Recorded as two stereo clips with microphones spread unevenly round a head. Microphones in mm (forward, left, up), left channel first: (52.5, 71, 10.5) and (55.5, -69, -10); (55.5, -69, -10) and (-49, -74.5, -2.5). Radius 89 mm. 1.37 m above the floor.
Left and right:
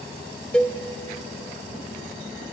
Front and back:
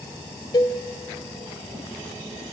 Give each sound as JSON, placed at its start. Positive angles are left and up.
{"t": 0.5, "sound": "a cowbell", "azimuth_deg": 25, "distance_m": 1.2}